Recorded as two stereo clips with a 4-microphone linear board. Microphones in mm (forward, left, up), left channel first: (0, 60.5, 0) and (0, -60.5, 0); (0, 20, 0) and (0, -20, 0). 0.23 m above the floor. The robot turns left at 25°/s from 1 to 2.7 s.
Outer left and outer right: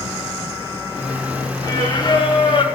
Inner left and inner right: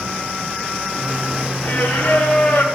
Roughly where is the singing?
Left.